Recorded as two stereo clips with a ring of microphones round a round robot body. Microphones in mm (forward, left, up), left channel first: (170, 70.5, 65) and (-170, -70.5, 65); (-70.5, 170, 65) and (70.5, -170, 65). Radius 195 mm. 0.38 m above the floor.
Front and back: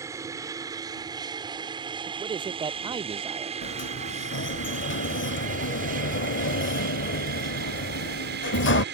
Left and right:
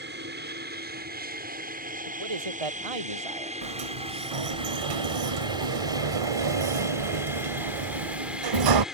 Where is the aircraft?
85° right; by 8.9 s 155° right.